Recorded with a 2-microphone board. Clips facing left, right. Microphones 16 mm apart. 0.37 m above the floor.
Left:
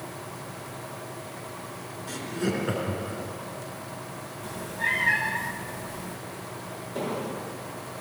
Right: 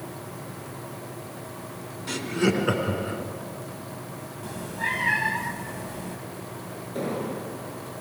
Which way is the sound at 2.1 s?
45° right (ahead or behind).